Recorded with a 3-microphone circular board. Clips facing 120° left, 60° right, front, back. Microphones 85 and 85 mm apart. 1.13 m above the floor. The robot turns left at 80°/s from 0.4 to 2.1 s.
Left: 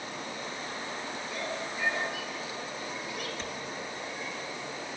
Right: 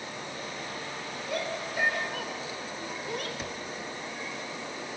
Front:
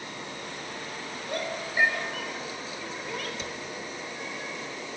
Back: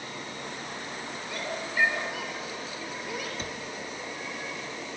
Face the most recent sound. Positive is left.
turn(degrees=-140)